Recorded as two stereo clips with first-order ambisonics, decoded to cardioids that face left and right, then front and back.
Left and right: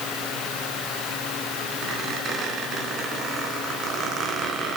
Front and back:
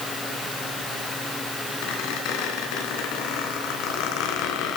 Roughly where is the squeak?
Ahead right.